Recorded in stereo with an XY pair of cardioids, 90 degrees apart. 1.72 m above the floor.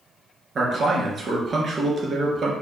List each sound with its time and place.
0.6 s a man speaking: 45° right, 2 m